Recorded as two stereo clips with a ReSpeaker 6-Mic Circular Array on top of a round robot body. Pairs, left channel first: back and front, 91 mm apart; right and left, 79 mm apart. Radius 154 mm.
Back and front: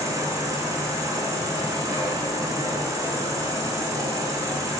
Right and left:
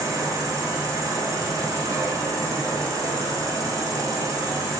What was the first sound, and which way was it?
An insect, 50° left.